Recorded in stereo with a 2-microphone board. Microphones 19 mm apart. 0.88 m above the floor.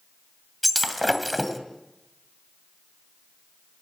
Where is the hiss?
No hiss in this recording.